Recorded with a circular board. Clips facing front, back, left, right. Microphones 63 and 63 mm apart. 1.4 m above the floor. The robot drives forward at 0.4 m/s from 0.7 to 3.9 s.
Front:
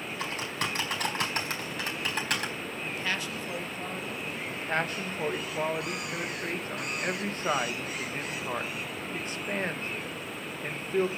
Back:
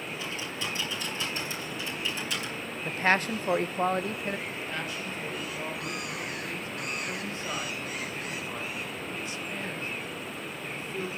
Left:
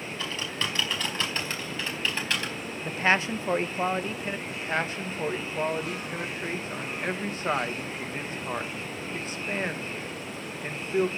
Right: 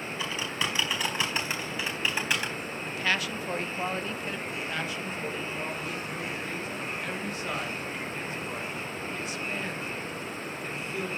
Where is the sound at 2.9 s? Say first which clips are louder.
Back 9 dB, left 6 dB; 135° left, 0.5 m; by 4.4 s 155° left, 0.9 m.